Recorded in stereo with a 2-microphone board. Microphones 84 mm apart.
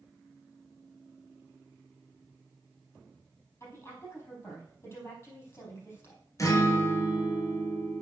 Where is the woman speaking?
35° left (ahead or behind), 4.5 m.